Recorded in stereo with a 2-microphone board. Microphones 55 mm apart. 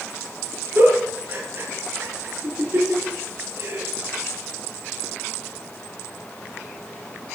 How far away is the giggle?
About 7.5 m.